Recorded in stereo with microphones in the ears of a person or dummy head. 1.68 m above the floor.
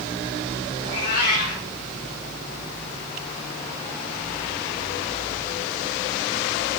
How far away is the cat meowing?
About 3 m.